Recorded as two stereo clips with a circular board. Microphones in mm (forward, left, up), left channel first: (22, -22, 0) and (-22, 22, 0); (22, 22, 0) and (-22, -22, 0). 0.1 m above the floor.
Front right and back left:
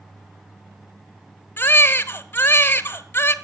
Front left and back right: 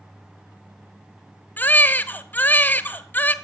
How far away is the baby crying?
About 0.8 m.